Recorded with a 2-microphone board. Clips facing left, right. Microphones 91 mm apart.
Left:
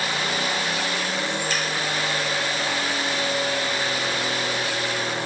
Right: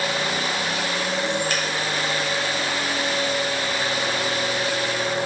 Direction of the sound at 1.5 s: 55° right (ahead or behind).